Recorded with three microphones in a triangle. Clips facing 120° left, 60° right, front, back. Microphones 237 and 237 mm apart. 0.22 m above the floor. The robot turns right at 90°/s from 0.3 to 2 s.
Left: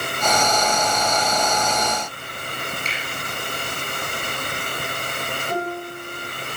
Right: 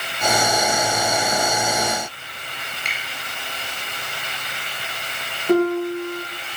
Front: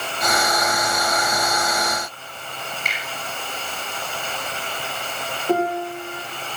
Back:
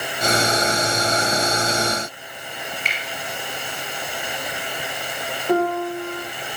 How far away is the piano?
About 3 m.